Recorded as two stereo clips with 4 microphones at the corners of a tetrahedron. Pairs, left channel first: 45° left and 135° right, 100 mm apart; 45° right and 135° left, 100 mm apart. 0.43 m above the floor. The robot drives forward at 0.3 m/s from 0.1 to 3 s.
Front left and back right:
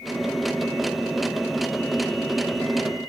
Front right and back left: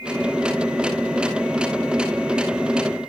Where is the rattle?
No rattle in this recording.